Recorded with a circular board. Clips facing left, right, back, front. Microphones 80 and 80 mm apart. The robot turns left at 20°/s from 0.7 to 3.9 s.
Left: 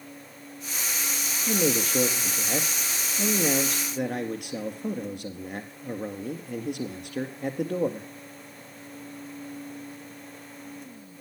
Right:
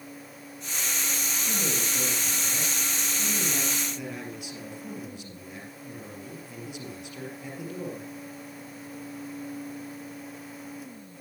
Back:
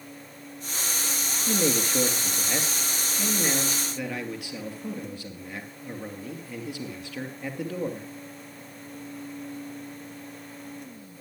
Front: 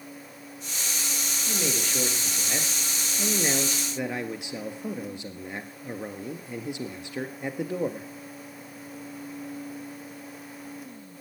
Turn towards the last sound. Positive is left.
turn(degrees=65)